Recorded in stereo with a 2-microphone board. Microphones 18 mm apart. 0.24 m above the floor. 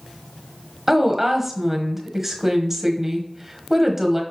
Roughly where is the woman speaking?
Right.